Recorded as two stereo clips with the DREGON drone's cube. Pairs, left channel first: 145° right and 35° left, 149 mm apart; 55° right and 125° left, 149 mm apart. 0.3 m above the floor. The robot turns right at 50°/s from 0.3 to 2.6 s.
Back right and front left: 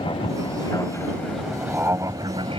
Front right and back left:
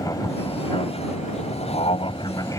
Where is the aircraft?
110° right; by 2.6 s 5° left.